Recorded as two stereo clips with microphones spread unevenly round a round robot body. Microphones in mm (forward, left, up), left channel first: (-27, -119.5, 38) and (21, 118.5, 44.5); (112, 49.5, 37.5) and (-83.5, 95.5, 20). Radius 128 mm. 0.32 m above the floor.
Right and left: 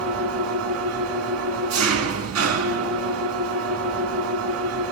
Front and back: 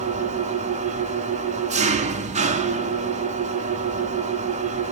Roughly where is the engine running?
Left.